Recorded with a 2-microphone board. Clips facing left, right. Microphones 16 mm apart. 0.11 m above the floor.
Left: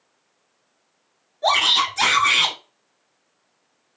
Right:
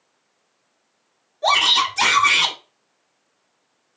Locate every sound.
1.4 s a shout: centre (ahead or behind), 1.9 m